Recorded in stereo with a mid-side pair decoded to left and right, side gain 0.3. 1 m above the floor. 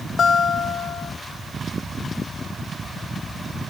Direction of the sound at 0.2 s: 70° left.